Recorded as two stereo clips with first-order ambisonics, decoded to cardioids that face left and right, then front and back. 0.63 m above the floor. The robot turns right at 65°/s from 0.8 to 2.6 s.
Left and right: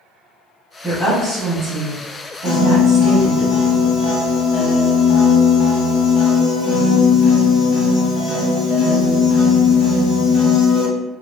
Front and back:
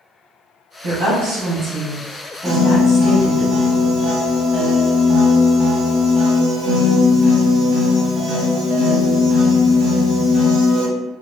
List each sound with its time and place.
0.8 s a woman speaking: 170° left, 1.2 m; by 3.5 s 75° right, 1.2 m
2.5 s a piano: 125° left, 0.8 m; by 10.9 s 130° left, 0.8 m